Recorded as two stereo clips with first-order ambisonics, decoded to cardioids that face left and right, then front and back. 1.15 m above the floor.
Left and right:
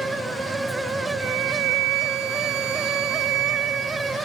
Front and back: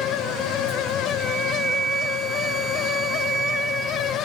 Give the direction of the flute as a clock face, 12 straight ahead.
3 o'clock.